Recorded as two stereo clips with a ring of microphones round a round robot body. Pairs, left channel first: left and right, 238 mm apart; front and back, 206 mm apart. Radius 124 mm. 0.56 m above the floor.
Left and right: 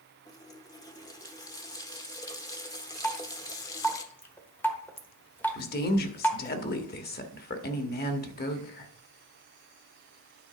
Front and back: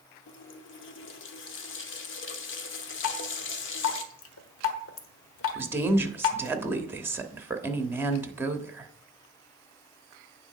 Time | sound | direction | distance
0.3 | a running tap | 15° left | 1.1 m
3.0 | dripping | 10° left | 1.2 m
5.5 | a woman speaking | 105° left | 1.3 m